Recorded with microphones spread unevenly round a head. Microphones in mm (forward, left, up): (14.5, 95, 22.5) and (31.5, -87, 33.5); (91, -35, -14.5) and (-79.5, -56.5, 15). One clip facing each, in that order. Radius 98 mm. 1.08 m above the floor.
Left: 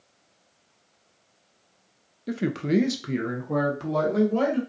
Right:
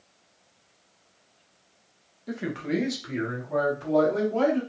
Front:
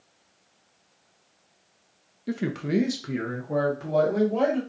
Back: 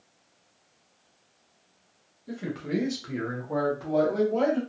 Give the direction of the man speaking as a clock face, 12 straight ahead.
11 o'clock.